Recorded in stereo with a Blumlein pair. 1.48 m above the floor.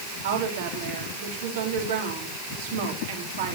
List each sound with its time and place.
0.2 s a woman speaking: 55° right, 4 m